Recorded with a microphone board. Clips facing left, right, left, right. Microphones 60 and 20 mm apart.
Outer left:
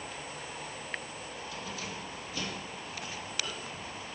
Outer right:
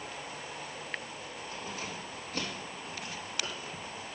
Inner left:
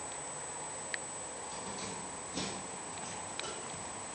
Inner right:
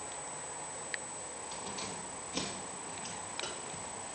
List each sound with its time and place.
1.5 s keys jangling: 40° right (ahead or behind), 2.5 m; by 4.2 s 60° right (ahead or behind), 1.8 m